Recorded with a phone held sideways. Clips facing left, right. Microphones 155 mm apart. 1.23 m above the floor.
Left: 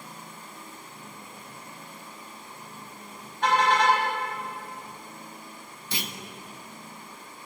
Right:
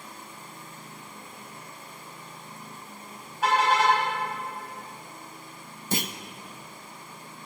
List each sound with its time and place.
3.4 s a car horn: 5° right (ahead or behind), 4 m
5.9 s a clunk: 45° right (ahead or behind), 0.7 m